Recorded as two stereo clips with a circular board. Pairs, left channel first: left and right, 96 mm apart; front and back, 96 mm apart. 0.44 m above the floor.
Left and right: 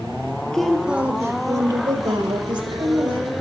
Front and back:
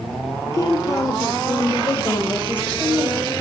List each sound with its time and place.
0.5 s a woman speaking: 15° left, 0.8 m; by 3.3 s 75° right, 2 m